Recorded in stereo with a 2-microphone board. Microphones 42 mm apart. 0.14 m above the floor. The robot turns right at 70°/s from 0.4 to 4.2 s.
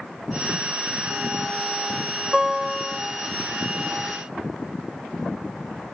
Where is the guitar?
25° right, 7 m; by 3.0 s 20° left, 7 m.